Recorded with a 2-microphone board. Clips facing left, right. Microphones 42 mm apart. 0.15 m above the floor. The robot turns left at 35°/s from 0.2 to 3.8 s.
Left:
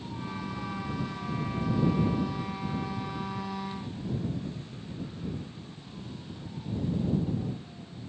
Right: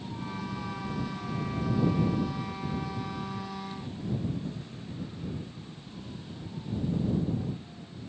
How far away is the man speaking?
No man speaking in this recording.